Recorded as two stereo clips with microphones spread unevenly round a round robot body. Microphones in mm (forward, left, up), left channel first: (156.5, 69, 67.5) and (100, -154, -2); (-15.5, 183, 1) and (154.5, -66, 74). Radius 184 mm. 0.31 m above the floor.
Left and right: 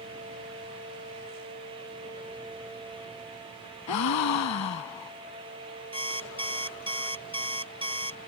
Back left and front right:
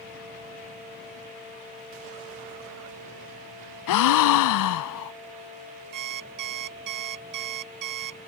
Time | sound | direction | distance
3.9 | a gasp | 95° left | ?
5.9 | an alarm clock | 35° right | ?